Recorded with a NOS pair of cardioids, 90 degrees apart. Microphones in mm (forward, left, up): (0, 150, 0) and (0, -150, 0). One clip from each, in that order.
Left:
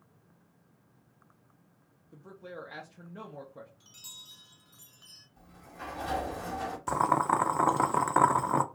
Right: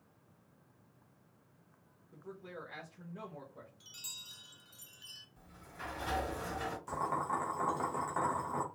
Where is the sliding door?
5° left, 2.5 m.